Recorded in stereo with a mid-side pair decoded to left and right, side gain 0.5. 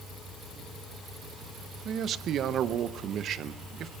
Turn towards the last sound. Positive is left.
turn(degrees=-55)